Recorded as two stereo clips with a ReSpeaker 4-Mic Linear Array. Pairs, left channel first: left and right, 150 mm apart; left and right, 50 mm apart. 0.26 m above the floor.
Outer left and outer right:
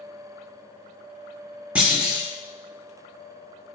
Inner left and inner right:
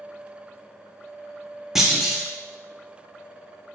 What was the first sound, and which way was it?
A clunk, 10° right (ahead or behind).